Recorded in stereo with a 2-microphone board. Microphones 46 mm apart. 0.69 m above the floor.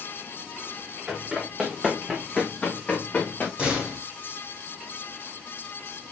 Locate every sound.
1.1 s running footsteps: 20° right (ahead or behind), 4 m; by 3.5 s 30° left (ahead or behind), 3 m
3.6 s a door slam: 20° right (ahead or behind), 3.5 m